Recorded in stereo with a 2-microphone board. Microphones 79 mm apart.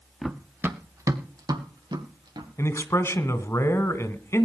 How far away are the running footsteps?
About 1.3 m.